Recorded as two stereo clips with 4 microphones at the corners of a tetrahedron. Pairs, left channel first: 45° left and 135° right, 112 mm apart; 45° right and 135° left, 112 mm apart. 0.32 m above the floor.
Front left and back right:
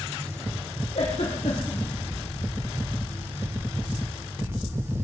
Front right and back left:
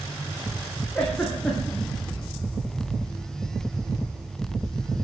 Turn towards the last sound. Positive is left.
turn(degrees=35)